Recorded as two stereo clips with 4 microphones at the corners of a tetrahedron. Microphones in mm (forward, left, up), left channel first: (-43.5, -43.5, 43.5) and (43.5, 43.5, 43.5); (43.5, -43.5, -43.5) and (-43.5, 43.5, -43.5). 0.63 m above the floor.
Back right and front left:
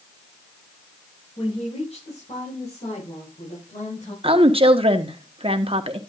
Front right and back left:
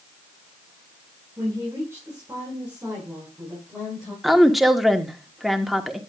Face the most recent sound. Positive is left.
turn(degrees=45)